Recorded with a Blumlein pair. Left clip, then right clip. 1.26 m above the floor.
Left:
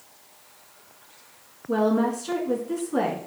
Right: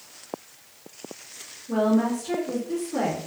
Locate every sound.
1.7 s a woman speaking: 25° left, 1.9 m